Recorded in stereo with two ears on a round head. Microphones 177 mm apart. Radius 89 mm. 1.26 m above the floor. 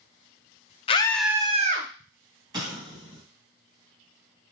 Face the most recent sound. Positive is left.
turn(degrees=-20)  # may be behind; listen again after turning